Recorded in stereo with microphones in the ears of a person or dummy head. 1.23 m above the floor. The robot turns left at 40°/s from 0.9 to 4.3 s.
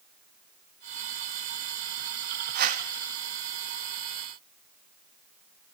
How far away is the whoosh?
About 1.0 m.